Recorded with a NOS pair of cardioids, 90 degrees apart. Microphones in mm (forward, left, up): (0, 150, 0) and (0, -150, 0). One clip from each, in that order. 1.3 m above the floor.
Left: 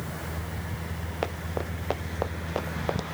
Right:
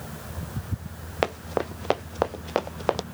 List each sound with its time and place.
1.2 s running footsteps: 45° right